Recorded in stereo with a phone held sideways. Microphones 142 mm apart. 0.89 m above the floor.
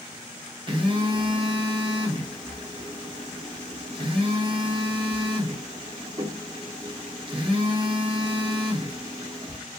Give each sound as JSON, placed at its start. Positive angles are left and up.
{"t": 0.7, "sound": "a phone buzzing", "side_deg": -35, "distance_m": 1.0}